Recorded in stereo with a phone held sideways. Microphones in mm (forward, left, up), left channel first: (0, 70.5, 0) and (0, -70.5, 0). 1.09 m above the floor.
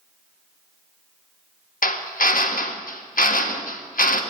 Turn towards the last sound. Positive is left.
turn(degrees=75)  # may be behind; listen again after turning